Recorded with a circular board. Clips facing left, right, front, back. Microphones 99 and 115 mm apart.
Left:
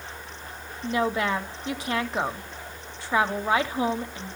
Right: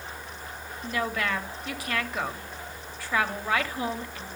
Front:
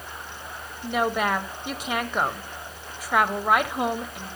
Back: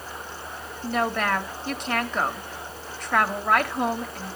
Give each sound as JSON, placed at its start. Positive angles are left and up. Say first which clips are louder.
{"t": 0.8, "sound": "a woman speaking", "louder": "left 4 dB, front 1 dB", "azimuth_deg": 70, "distance_m": 0.9}